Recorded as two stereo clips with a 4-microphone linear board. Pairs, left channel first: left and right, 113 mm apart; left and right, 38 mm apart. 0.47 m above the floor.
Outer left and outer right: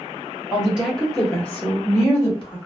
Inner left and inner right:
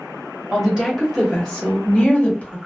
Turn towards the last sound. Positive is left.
turn(degrees=40)  # may be behind; listen again after turning